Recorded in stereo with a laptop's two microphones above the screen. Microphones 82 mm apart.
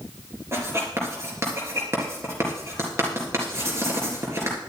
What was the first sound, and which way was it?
Writing, 35° right (ahead or behind).